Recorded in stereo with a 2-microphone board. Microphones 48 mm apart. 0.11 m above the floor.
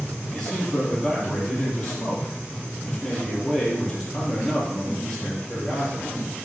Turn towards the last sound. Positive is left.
turn(degrees=5)  # may be behind; listen again after turning